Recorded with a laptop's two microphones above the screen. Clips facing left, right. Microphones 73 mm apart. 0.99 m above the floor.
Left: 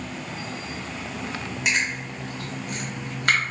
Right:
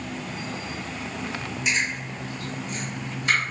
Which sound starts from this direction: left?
Chewing, at 1.6 s.